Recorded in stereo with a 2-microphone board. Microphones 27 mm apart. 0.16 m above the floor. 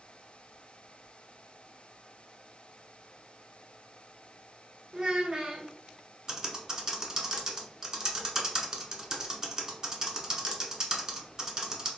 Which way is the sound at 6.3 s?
25° right (ahead or behind).